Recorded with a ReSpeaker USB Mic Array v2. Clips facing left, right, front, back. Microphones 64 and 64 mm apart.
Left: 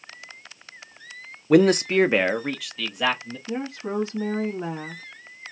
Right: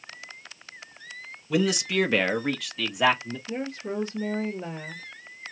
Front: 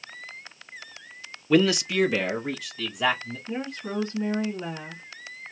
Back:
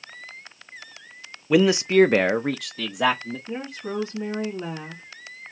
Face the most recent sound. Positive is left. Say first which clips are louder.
# left 3 dB, front 1 dB
turn(degrees=105)